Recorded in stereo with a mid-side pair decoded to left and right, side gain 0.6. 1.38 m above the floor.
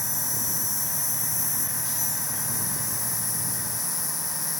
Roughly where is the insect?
Ahead.